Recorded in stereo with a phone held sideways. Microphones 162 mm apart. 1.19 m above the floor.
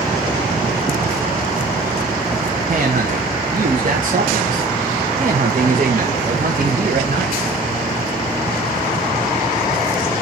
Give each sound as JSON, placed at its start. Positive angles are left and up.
{"t": 2.7, "sound": "a man speaking", "side_deg": -55, "distance_m": 1.2}